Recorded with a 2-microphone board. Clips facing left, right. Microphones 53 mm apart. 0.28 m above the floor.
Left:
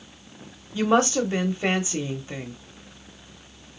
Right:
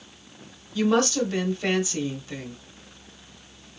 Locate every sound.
0.7 s a woman speaking: 25° left (ahead or behind), 1.0 m